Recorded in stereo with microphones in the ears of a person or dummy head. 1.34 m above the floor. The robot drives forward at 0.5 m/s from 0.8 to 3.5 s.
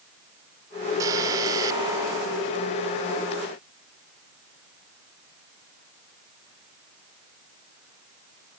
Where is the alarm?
20° right (ahead or behind); by 2.9 s 25° right (ahead or behind).